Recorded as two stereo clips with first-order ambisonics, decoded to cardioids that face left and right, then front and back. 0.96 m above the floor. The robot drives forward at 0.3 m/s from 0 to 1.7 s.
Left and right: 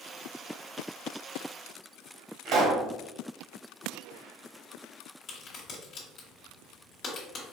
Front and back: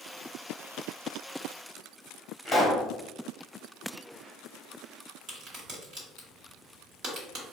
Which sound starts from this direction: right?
A pop, at 2.5 s.